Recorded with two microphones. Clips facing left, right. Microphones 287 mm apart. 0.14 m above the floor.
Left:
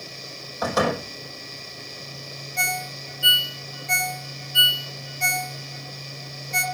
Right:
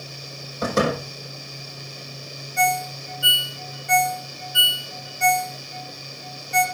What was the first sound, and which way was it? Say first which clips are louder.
A door slam: right 2 dB; 30° right (ahead or behind).